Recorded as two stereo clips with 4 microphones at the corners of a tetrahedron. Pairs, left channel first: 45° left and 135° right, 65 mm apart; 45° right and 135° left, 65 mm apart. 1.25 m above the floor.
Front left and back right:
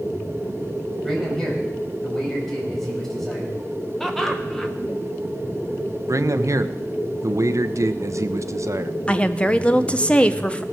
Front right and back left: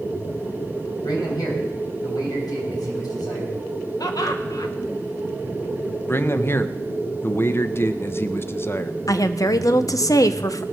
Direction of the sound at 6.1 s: 100° right.